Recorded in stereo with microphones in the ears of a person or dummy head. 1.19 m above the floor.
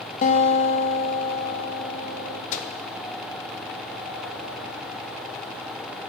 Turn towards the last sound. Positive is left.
turn(degrees=45)  # may be behind; listen again after turning